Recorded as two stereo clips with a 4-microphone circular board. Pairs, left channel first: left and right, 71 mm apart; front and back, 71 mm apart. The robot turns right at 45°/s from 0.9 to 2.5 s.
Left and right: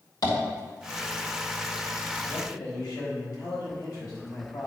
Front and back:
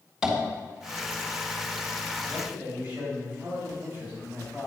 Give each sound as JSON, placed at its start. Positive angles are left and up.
{"t": 0.2, "sound": "tapping", "azimuth_deg": 100, "distance_m": 3.0}
{"t": 2.3, "sound": "a man speaking", "azimuth_deg": 100, "distance_m": 3.5}